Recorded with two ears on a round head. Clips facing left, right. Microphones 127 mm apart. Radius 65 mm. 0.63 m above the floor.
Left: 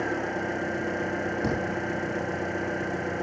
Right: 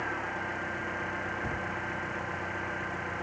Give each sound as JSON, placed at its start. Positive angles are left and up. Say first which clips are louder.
{"t": 0.0, "sound": "an engine running", "louder": "left 7 dB", "side_deg": 50}
{"t": 1.4, "sound": "a thud", "louder": "left 8 dB", "side_deg": 75}